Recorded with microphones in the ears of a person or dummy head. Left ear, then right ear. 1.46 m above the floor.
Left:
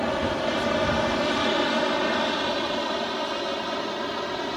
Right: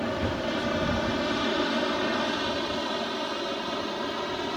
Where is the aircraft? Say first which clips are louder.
Left 4 dB; 30° left (ahead or behind); by 4.6 s 15° left (ahead or behind).